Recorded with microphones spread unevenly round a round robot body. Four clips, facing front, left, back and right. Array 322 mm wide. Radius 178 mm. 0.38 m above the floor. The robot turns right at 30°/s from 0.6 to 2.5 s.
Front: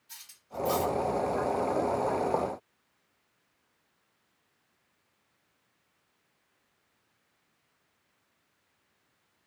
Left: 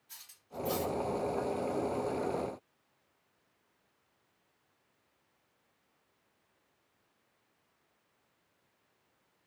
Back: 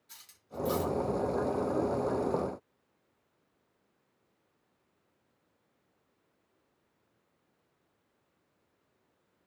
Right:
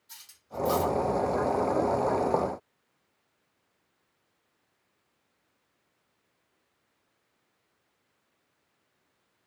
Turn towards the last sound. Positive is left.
turn(degrees=-85)